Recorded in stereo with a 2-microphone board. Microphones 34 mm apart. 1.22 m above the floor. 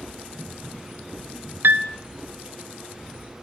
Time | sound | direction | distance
1.6 | a piano | 70° right (ahead or behind) | 0.6 m